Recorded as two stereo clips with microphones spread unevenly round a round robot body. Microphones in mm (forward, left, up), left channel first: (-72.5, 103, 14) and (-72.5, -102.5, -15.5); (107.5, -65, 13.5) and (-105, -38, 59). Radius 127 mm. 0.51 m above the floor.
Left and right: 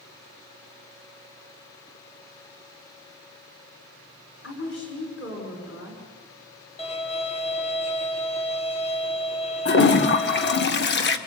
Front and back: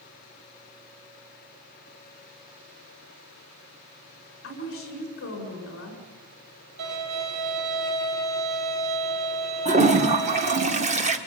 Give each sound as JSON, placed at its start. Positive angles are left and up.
{"t": 4.4, "sound": "a woman speaking", "azimuth_deg": 40, "distance_m": 7.0}
{"t": 6.8, "sound": "a violin", "azimuth_deg": 150, "distance_m": 3.5}
{"t": 9.7, "sound": "a toilet flushing", "azimuth_deg": 110, "distance_m": 1.7}